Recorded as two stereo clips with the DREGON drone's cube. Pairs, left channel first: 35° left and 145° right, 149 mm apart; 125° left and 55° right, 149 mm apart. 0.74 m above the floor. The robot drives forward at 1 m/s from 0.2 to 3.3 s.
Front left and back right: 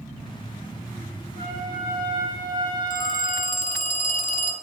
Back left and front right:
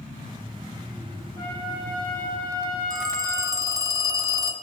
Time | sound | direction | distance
1.4 | a trumpet | 170° right | 6.5 m
2.9 | a phone ringing | 5° left | 2.5 m